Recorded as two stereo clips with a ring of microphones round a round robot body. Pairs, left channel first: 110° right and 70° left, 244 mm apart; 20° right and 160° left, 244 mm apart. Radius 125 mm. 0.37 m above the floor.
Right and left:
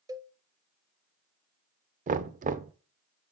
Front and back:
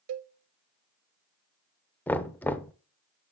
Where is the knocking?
55° left, 0.6 m.